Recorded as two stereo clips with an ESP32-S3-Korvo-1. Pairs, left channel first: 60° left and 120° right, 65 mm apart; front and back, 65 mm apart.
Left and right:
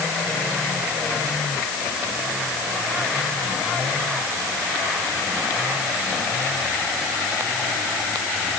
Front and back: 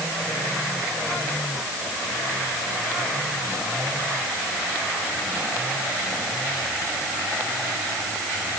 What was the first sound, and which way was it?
Only background noise.